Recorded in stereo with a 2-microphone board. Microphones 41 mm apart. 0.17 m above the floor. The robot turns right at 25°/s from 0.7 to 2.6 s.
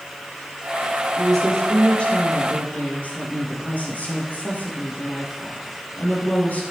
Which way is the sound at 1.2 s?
5° left.